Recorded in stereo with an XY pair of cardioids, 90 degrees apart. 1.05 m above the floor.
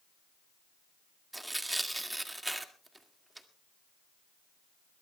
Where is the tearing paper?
15° right, 1.9 m.